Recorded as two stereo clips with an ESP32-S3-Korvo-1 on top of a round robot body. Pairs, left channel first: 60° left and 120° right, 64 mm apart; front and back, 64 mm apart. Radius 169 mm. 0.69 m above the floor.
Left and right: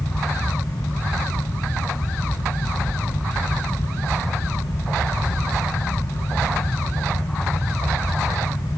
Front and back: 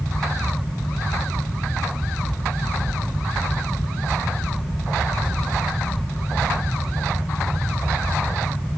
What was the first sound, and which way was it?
Only background noise.